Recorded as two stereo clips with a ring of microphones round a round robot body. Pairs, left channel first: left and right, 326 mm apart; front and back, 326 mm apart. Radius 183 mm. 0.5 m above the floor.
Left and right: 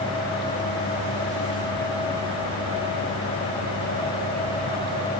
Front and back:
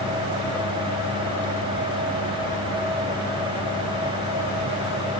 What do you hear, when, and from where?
Only background noise.